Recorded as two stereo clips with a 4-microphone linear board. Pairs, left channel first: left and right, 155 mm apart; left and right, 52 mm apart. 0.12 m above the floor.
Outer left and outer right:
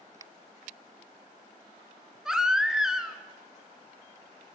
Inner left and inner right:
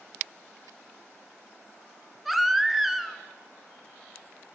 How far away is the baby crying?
About 0.6 m.